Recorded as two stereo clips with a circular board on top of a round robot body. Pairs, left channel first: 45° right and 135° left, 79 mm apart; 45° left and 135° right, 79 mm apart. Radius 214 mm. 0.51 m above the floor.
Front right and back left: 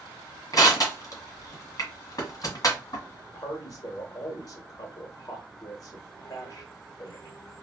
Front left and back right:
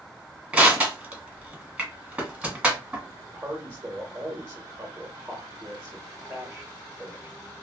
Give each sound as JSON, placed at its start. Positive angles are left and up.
{"t": 0.5, "sound": "crushing", "azimuth_deg": -65, "distance_m": 1.5}
{"t": 3.2, "sound": "a man speaking", "azimuth_deg": -70, "distance_m": 1.1}